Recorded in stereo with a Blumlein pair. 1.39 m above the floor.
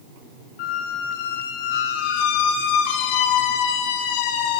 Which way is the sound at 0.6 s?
45° left.